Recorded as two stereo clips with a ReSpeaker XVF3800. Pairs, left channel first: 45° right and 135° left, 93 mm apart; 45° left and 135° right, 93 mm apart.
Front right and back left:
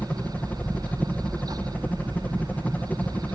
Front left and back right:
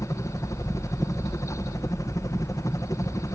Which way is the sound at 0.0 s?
20° left.